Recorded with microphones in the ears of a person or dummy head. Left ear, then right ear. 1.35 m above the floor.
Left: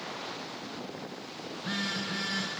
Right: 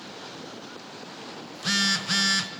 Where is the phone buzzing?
80° right, 0.7 m.